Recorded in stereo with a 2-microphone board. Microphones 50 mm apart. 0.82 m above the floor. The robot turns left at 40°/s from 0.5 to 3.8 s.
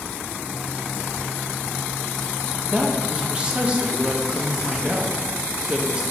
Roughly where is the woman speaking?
Centre.